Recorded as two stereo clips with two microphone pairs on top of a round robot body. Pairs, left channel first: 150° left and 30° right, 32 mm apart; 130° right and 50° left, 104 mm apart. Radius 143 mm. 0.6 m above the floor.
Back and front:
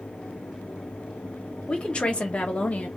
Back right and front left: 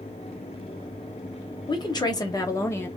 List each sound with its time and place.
1.7 s a woman speaking: 155° right, 1.4 m; by 2.9 s 175° left, 1.1 m